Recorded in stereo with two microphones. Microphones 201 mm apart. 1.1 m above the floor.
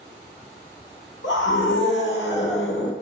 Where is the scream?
65° left (ahead or behind), 1.6 m.